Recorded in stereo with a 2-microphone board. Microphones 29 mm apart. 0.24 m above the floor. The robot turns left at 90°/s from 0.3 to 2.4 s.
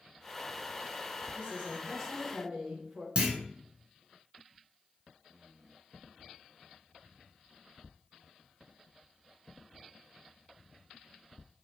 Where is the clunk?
40° right (ahead or behind), 1.1 m.